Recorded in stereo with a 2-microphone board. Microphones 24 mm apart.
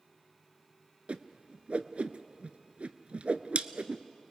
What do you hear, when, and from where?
1.1 s a whoosh: 60° right (ahead or behind), 0.6 m